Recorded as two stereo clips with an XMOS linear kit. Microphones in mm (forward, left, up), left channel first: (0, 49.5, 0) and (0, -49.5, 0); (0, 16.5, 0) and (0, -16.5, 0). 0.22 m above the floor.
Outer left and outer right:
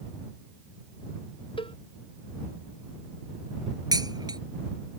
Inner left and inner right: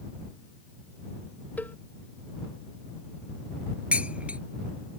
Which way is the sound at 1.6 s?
60° left (ahead or behind).